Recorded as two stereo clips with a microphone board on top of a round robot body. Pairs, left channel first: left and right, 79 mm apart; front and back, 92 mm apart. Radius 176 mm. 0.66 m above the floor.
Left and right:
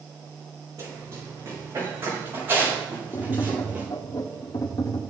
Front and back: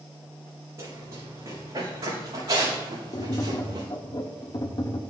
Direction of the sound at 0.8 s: 125° right.